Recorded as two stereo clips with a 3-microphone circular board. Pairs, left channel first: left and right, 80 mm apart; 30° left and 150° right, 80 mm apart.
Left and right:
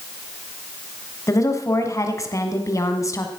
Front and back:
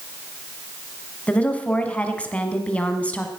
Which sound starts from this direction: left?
A woman speaking, at 1.3 s.